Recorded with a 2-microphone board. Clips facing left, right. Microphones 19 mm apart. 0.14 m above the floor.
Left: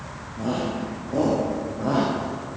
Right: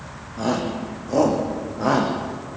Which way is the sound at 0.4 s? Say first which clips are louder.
Right 3 dB; 60° right (ahead or behind).